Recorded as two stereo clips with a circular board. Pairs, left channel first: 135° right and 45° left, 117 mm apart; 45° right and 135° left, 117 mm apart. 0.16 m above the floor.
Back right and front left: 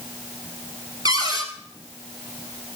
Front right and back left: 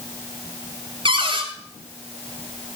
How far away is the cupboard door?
About 2 m.